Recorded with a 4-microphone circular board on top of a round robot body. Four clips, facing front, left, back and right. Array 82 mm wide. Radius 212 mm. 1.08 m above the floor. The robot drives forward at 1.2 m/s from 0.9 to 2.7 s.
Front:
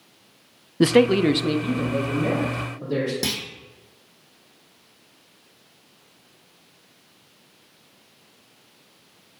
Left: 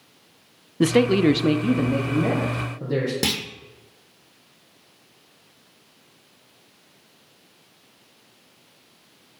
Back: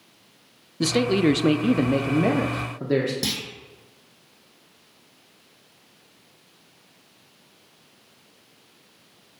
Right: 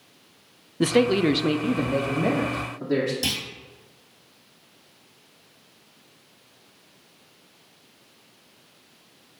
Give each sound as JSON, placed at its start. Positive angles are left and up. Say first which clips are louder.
{"t": 0.8, "sound": "a man speaking", "louder": "left 2 dB, front 4 dB", "azimuth_deg": 10, "distance_m": 0.8}
{"t": 3.2, "sound": "a clunk", "louder": "left 4 dB, front 1 dB", "azimuth_deg": 85, "distance_m": 1.2}